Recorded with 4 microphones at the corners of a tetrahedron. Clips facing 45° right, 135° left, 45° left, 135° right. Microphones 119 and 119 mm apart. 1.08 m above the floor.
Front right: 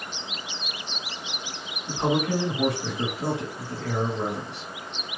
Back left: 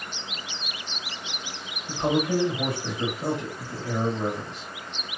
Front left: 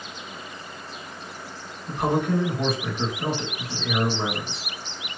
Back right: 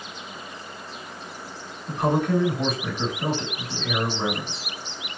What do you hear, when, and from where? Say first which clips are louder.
1.9 s a man speaking: even, back right 1 dB; 40° right, 1.5 m